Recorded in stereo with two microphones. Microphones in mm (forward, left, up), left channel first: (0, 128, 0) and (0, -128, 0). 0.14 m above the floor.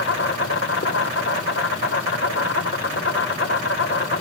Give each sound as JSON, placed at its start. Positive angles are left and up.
{"t": 0.0, "sound": "an insect", "side_deg": 55, "distance_m": 1.1}